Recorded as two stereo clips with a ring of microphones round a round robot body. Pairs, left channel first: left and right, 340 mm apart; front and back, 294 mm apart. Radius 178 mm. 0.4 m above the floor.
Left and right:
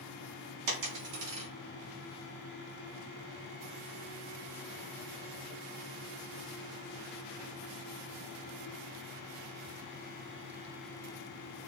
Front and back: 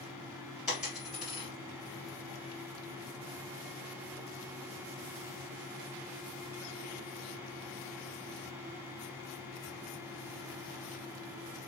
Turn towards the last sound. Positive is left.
turn(degrees=-95)